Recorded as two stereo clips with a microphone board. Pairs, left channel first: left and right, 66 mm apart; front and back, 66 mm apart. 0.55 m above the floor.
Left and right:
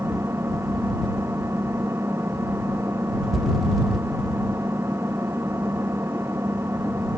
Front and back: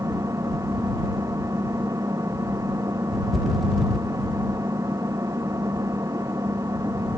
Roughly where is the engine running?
Behind right.